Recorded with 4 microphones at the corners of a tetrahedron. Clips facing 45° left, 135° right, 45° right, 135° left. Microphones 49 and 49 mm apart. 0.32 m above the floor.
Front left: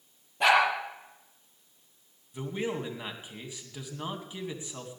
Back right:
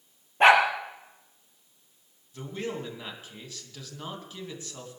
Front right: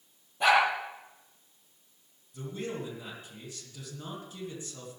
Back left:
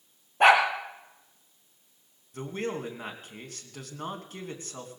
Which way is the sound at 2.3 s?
115° left.